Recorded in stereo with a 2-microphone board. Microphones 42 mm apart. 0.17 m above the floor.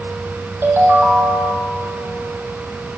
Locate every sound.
0.6 s a ringtone: 55° right (ahead or behind), 3 m